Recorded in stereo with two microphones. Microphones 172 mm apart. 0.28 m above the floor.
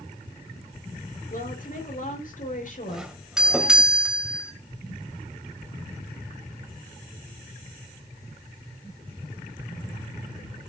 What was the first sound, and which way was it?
A woman speaking, 55° left (ahead or behind).